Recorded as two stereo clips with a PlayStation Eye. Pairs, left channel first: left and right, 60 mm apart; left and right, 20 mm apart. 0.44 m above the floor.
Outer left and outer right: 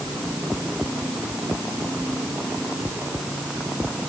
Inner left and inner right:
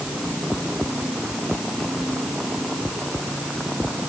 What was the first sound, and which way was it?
Only background noise.